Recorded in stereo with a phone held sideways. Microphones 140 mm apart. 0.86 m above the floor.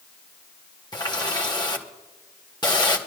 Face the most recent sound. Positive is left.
turn(degrees=30)  # may be behind; listen again after turning